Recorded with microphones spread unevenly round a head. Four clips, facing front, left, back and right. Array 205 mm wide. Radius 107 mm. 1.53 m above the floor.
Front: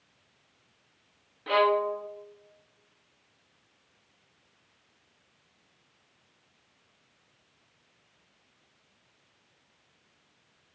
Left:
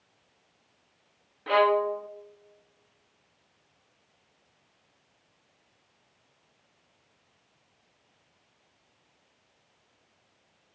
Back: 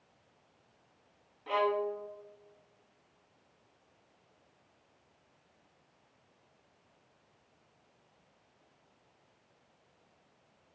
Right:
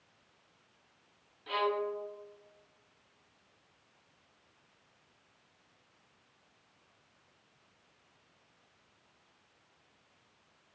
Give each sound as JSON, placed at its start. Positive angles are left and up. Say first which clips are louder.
{"t": 1.5, "sound": "a violin", "louder": "left 10 dB, front 6 dB", "azimuth_deg": 60, "distance_m": 0.6}